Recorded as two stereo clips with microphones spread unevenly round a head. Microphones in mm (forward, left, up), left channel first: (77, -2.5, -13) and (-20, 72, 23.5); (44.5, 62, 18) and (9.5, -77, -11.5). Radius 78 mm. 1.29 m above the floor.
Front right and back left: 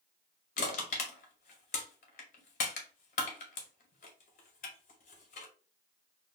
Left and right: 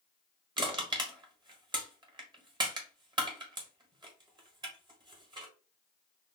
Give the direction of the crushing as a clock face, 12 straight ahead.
1 o'clock.